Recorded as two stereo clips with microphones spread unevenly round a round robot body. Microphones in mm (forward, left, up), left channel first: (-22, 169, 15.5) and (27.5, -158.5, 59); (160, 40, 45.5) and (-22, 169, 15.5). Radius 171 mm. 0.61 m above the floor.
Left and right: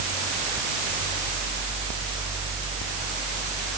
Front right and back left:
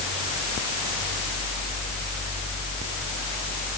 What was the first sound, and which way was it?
Only background noise.